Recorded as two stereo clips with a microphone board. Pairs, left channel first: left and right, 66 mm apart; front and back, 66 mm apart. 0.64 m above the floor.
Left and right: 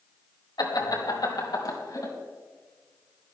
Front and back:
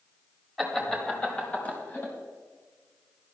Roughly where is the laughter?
Left.